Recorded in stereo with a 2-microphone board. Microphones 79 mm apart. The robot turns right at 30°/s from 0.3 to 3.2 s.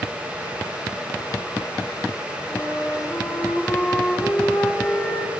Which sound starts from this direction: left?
A flute, at 2.5 s.